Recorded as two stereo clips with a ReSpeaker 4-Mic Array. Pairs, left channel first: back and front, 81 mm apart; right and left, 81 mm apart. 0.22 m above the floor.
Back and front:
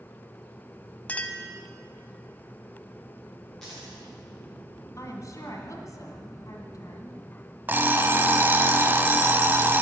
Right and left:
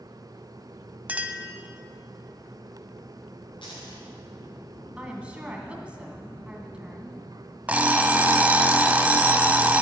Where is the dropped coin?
90° right, 6.5 m.